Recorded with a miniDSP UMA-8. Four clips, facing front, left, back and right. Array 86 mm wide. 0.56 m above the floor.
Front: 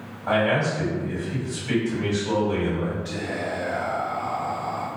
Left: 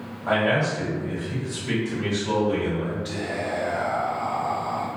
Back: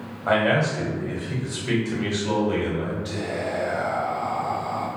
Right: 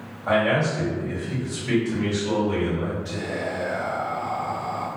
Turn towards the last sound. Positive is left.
turn(degrees=115)